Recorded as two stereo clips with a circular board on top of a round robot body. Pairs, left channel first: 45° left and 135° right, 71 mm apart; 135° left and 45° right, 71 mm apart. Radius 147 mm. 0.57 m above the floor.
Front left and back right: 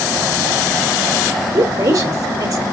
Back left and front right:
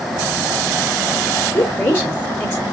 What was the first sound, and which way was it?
A woman speaking, 155° right.